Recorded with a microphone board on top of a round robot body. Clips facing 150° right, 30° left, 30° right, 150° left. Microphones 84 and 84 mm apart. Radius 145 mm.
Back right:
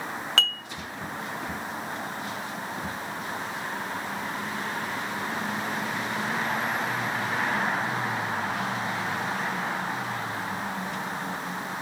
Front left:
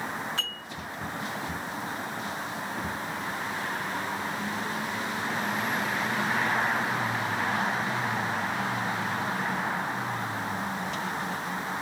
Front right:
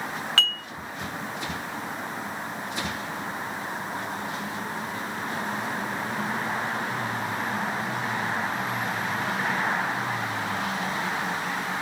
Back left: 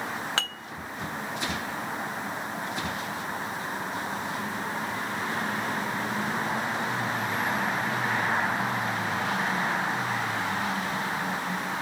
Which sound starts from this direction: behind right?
Dishes clattering, at 0.4 s.